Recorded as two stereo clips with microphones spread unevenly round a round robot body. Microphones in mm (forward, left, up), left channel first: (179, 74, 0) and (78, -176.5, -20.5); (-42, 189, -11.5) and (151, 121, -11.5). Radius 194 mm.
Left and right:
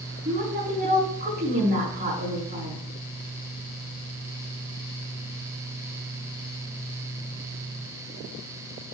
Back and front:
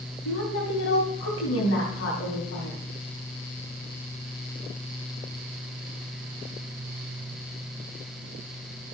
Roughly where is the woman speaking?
Behind.